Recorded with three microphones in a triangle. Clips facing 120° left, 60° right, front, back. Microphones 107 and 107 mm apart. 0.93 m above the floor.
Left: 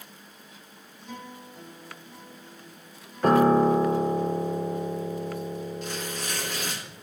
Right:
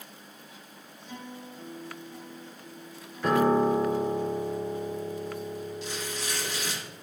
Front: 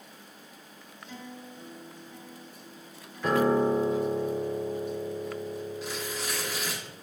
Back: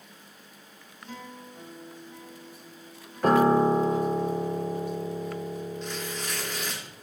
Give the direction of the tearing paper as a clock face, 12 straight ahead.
9 o'clock.